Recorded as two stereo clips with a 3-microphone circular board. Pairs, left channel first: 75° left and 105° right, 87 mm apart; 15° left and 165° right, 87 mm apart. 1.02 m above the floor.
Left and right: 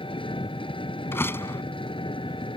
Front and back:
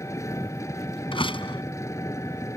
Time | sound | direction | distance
0.0 | an engine running | 70° left | ?
1.1 | a door slam | 10° left | ?